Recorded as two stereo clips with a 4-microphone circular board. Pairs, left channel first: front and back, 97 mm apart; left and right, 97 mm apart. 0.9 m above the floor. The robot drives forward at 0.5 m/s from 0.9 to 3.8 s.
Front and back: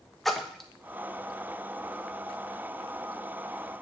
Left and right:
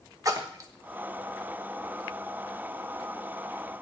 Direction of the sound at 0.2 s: 85° right.